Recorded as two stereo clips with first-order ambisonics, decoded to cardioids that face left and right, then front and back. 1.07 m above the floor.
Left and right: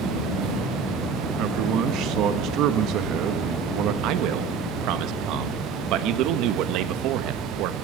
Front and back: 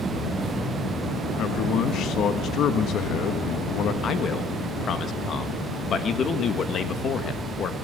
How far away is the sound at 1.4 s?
About 1.2 m.